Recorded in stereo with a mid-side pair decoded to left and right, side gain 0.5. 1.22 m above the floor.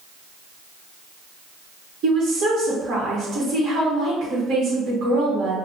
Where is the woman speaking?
65° right, 1.1 m.